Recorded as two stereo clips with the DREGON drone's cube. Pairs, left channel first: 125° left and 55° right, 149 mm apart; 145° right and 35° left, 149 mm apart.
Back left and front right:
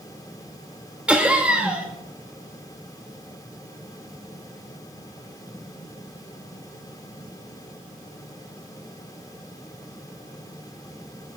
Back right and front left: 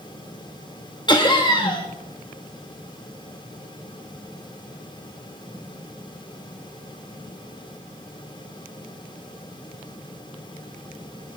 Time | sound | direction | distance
1.1 | laughter | 130° right | 1.3 m